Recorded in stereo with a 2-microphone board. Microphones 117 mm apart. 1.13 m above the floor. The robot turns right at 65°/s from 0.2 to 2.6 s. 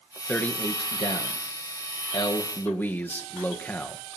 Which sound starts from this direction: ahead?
A man speaking, at 0.3 s.